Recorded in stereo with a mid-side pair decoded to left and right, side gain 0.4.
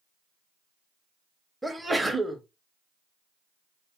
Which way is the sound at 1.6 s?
10° right.